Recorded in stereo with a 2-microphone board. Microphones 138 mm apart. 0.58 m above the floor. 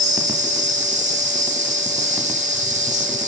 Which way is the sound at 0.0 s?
60° right (ahead or behind).